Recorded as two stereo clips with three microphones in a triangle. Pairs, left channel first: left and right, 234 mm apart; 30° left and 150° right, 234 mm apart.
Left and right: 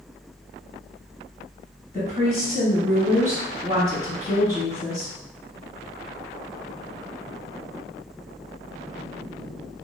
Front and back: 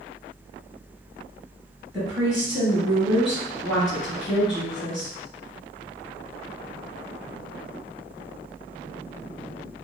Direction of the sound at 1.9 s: 120° left.